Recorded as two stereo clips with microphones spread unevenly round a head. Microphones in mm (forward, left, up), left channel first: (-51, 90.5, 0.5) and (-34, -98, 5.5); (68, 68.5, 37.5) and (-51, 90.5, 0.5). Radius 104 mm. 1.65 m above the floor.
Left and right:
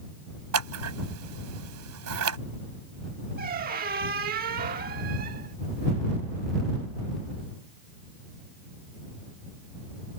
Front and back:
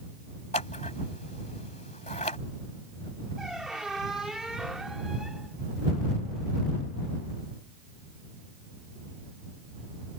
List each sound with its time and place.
0.5 s scissors: 70° right
3.4 s a squeak: 80° right